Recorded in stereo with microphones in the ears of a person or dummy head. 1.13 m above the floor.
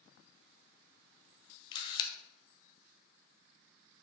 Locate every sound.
1.7 s a camera shutter: 25° left (ahead or behind), 0.6 m